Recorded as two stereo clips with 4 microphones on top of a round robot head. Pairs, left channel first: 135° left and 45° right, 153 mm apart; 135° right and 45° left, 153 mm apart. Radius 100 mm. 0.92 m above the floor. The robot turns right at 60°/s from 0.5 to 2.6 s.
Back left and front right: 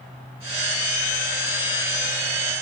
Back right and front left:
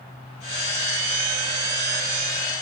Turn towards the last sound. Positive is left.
No sound to turn to.